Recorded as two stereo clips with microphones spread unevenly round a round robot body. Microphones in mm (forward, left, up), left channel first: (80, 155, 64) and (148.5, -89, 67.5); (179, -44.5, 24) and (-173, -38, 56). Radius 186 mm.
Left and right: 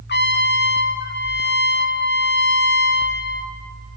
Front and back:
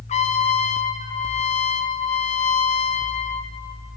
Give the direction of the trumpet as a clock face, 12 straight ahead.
10 o'clock.